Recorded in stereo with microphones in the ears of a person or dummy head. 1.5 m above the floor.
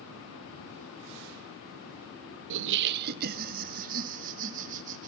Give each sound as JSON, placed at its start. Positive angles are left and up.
{"t": 2.5, "sound": "laughter", "side_deg": -70, "distance_m": 0.6}